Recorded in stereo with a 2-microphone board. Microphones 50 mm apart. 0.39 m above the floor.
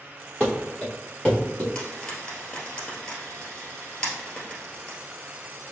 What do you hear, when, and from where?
0.4 s running footsteps: centre (ahead or behind), 1.8 m; by 1.6 s 20° left (ahead or behind), 2 m
1.8 s frying: 15° left (ahead or behind), 1.7 m